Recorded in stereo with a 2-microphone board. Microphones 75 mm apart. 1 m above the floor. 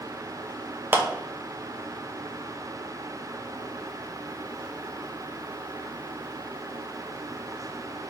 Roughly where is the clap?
Right.